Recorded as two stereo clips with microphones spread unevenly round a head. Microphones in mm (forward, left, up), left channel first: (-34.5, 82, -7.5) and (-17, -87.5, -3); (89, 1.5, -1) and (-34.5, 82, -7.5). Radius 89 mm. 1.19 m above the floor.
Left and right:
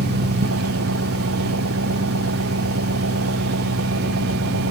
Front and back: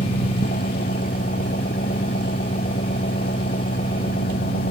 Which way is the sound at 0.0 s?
85° right.